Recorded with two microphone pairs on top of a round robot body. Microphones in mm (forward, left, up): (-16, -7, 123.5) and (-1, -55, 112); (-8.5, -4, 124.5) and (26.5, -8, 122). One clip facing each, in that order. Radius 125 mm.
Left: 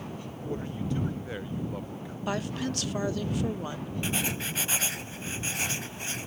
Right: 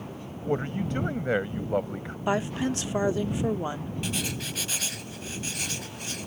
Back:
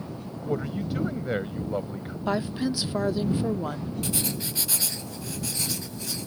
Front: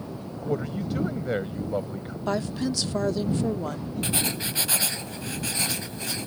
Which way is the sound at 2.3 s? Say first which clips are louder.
Right 5 dB, even; 115° right.